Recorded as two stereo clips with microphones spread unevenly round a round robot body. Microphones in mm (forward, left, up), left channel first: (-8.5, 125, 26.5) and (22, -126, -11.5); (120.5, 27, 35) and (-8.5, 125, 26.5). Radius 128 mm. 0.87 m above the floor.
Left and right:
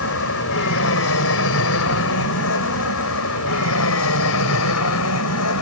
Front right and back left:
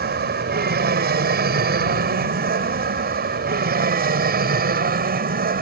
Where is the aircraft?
135° left; by 5.6 s 125° left.